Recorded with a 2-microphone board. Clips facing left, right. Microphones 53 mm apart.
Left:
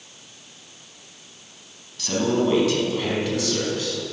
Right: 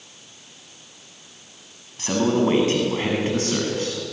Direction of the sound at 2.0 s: 30° right (ahead or behind).